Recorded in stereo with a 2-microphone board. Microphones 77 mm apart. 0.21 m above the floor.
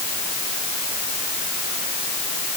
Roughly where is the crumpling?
I don't hear crumpling.